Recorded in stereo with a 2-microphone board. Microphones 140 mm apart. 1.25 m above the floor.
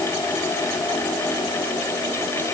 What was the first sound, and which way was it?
Only background noise.